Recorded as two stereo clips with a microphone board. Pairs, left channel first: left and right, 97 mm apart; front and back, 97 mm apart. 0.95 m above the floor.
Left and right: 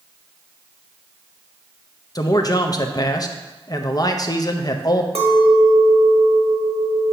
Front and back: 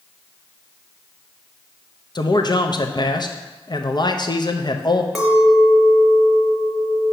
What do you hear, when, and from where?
2.1 s a man speaking: 40° left, 0.6 m
5.2 s a clink: 90° right, 1.1 m